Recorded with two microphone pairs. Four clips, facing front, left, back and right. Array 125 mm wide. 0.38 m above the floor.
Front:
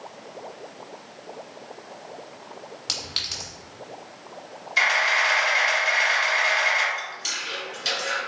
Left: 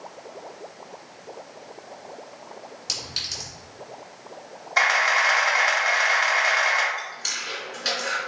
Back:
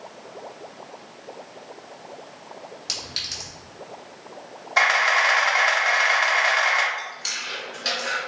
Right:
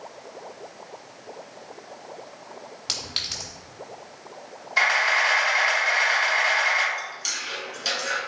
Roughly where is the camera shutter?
Behind left.